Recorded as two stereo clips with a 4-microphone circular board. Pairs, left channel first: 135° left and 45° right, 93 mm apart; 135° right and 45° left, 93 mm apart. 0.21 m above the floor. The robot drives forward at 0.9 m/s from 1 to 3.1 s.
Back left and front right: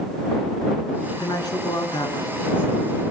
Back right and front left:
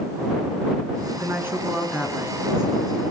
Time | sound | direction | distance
1.1 | a woman speaking | 100° left | 3 m